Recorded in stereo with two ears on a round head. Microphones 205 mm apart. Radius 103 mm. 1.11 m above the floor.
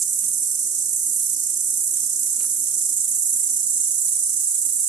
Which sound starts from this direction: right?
An insect, at 0.0 s.